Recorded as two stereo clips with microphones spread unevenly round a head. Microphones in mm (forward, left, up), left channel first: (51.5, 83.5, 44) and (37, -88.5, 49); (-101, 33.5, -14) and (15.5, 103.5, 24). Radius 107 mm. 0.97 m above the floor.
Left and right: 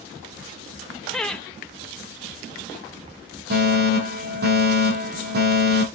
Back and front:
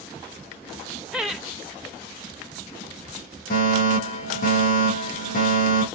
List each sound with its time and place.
1.1 s laughter: 160° left, 0.6 m
3.5 s a fire alarm: 125° right, 5 m